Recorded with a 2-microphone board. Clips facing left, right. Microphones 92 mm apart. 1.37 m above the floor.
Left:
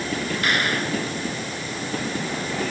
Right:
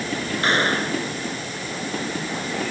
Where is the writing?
No writing in this recording.